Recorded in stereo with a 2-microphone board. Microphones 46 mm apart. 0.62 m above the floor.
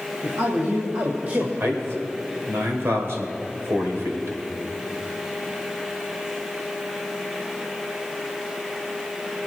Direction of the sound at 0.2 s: 75° right (ahead or behind).